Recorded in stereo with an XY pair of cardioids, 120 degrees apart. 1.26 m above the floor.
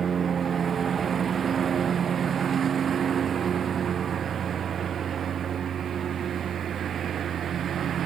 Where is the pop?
I don't hear a pop.